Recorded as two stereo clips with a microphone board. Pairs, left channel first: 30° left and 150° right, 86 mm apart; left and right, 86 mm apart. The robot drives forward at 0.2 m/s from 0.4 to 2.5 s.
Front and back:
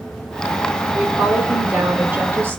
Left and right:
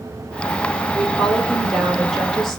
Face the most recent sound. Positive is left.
turn(degrees=170)